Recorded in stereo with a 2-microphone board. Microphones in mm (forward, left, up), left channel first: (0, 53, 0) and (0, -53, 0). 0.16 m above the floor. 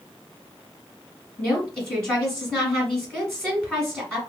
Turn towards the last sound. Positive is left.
turn(degrees=5)  # may be behind; listen again after turning